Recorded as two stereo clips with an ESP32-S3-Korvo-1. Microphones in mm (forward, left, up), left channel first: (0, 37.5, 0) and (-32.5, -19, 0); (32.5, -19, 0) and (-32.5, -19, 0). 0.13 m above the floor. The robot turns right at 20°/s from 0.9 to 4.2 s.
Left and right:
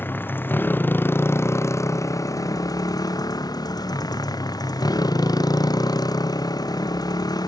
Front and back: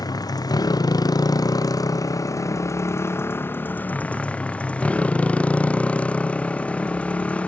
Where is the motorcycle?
5° left; by 7.5 s 70° left.